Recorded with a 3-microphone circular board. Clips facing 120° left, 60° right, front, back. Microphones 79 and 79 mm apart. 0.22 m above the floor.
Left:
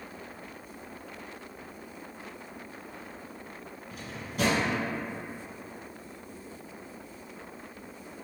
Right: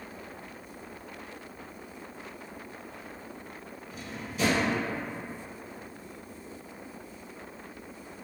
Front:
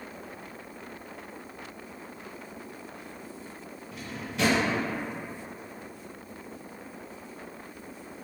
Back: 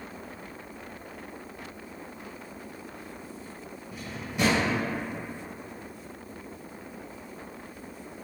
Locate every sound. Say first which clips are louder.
3.9 s a drawer: left 1 dB, back 1 dB; 100° left, 1.0 m